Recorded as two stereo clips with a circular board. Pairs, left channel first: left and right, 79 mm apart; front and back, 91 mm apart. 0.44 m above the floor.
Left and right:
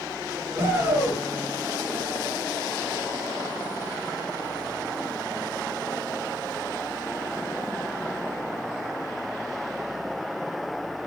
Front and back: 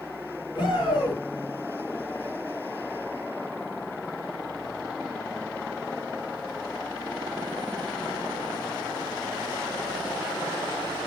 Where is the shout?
35° right, 7 m.